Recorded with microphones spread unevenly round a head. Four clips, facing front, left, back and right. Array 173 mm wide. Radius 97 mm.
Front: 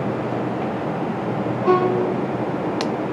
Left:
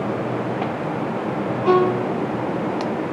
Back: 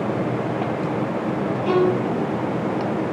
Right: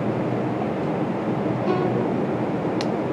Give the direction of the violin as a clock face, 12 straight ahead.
10 o'clock.